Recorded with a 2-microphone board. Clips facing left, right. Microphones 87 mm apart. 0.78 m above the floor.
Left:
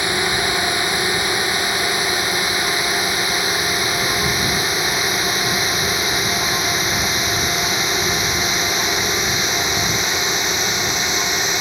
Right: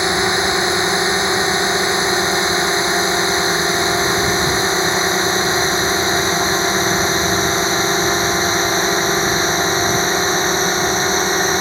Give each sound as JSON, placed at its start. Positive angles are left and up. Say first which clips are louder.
{"t": 0.0, "sound": "a drone", "louder": "right 4 dB", "side_deg": -20}